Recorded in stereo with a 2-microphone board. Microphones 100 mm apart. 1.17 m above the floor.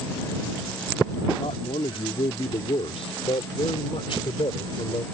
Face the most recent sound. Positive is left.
turn(degrees=60)  # may be behind; listen again after turning